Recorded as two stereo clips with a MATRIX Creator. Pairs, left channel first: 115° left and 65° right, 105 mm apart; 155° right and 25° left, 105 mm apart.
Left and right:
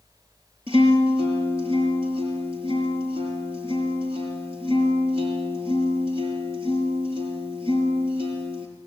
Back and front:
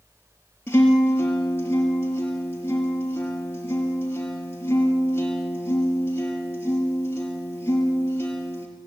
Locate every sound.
0.7 s a guitar: 90° right, 6 m